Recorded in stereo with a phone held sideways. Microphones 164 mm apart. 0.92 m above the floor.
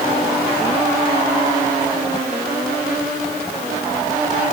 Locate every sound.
Only background noise.